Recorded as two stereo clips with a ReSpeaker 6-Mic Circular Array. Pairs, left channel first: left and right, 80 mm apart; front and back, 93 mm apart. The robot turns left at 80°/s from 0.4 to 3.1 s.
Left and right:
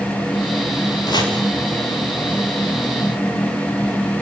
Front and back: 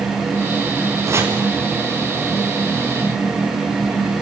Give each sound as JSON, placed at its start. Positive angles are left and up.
{"t": 1.1, "sound": "chopping", "azimuth_deg": 125, "distance_m": 4.5}